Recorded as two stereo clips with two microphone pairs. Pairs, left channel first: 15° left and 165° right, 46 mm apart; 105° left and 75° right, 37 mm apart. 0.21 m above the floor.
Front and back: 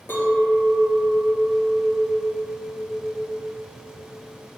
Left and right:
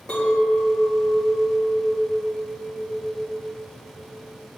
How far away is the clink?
About 2.0 m.